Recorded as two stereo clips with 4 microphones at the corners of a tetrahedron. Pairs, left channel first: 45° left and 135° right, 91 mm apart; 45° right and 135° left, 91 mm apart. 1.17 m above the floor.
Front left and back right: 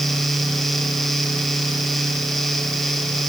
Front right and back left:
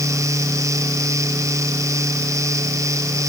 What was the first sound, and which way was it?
Only background noise.